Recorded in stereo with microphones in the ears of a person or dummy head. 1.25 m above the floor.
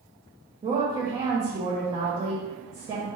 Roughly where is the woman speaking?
Centre.